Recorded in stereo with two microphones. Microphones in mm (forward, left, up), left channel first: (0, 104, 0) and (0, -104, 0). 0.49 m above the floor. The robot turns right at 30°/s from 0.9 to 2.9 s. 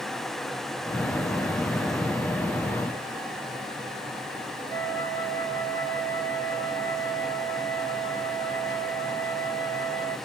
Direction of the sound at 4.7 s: 40° right (ahead or behind).